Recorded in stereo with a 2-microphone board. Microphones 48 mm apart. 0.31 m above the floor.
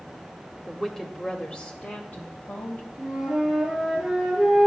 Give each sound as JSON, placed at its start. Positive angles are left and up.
{"t": 0.7, "sound": "a woman speaking", "side_deg": 0, "distance_m": 1.0}
{"t": 3.0, "sound": "a flute", "side_deg": -10, "distance_m": 5.0}